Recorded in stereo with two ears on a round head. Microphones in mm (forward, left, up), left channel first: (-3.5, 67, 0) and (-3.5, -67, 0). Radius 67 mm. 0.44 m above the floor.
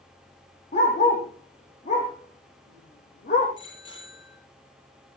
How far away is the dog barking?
About 8 m.